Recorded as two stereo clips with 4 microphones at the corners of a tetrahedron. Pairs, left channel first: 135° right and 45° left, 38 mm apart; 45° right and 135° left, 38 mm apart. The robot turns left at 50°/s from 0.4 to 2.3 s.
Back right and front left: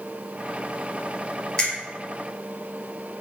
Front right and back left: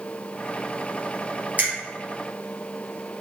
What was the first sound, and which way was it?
A finger snap, 170° left.